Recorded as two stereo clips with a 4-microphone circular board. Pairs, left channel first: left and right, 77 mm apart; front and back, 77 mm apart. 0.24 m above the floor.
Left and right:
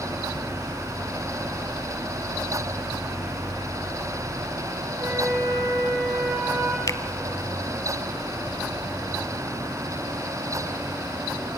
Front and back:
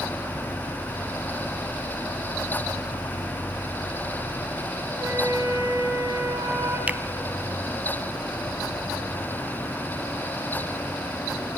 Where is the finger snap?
115° left, 1.1 m.